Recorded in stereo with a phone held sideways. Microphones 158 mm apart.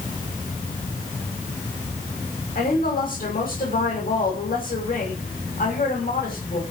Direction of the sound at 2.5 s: 65° left (ahead or behind).